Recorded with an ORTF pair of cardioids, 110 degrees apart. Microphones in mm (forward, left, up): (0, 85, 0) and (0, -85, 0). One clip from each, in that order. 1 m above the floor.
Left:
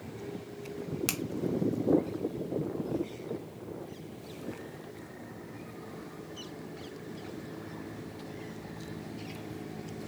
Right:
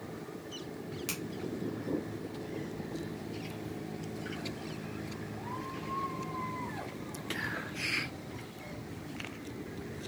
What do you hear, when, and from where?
1.1 s a finger snap: 45° left, 0.8 m